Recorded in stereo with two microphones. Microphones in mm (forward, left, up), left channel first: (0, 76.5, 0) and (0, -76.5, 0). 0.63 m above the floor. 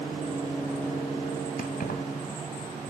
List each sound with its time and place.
1.6 s keys jangling: 85° left, 2.5 m